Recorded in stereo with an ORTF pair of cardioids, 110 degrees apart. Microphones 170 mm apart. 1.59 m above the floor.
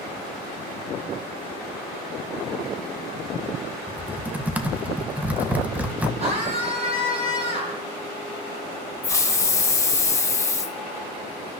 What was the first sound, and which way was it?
Typing on a keyboard, 10° right.